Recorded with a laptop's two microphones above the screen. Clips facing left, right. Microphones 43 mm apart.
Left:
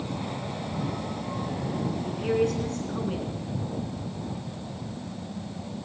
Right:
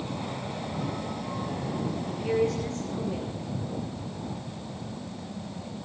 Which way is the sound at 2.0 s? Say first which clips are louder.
Left 1 dB; 75° left (ahead or behind).